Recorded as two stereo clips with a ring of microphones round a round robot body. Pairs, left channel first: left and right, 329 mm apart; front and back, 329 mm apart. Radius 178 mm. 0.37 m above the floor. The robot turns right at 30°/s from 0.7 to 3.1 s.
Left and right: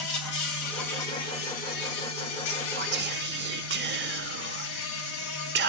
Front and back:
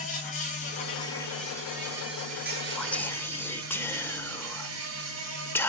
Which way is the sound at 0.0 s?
65° left.